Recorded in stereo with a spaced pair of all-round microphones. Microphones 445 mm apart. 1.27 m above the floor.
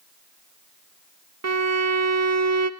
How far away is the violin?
About 0.7 m.